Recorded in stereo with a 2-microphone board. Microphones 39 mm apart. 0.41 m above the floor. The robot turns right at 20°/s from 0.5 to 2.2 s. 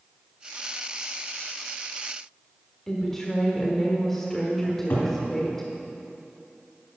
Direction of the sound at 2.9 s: 10° left (ahead or behind).